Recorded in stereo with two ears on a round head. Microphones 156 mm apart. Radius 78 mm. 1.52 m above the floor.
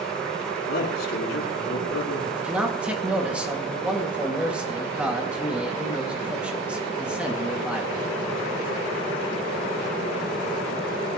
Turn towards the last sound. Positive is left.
turn(degrees=-5)  # may be behind; listen again after turning